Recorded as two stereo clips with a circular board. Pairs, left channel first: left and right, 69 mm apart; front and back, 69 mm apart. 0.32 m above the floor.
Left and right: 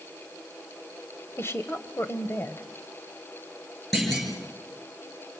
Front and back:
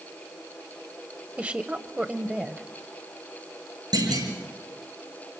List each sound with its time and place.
1.4 s a woman speaking: 120° left, 1.3 m
3.9 s a clunk: 175° left, 6 m